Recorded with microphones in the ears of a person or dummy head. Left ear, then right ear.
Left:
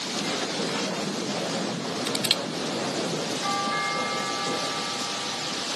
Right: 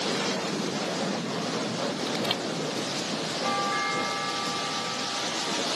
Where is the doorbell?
5° left (ahead or behind).